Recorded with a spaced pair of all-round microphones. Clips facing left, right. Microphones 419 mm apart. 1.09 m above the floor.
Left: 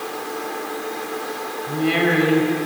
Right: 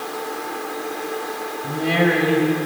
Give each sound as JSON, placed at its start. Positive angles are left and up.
{"t": 1.6, "sound": "a woman speaking", "side_deg": -75, "distance_m": 5.5}